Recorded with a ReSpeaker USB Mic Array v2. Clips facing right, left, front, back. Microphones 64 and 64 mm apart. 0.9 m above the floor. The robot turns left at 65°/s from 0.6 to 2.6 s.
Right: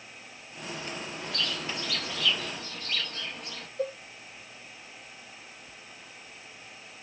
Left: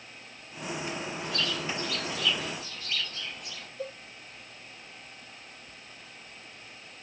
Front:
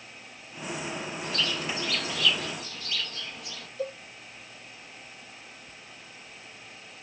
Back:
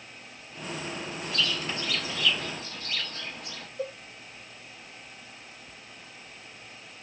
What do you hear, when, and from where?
1.2 s a bird: 45° right, 0.9 m; by 3.7 s 135° right, 0.9 m
3.8 s a cowbell: 125° right, 0.9 m